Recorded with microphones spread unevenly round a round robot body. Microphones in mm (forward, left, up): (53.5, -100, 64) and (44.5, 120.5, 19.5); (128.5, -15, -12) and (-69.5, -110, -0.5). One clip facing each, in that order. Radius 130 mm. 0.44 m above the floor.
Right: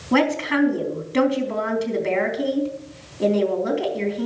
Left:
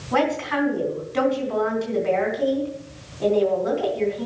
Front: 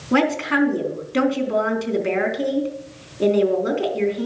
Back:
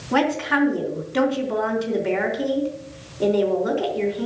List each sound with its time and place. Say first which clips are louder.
0.1 s a woman speaking: right 3 dB, front 2 dB; 35° right, 4 m